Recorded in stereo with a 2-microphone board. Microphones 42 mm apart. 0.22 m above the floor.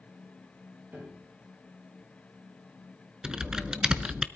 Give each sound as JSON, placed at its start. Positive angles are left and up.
{"t": 0.9, "sound": "a piano", "side_deg": -45, "distance_m": 6.0}
{"t": 3.2, "sound": "typing on a keyboard", "side_deg": -15, "distance_m": 0.7}